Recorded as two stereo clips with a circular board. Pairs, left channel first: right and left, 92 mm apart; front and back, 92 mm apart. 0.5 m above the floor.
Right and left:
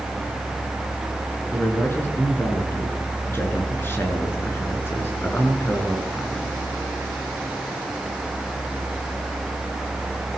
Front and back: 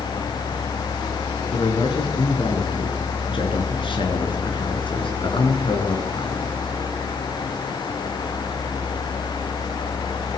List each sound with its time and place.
1.5 s a man speaking: 25° right, 7 m